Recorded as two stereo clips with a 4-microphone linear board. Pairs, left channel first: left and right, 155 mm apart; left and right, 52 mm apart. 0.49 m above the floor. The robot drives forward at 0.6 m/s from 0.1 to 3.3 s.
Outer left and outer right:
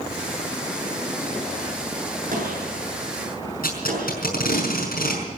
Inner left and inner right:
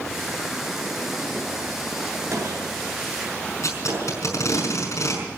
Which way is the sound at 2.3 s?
65° right (ahead or behind).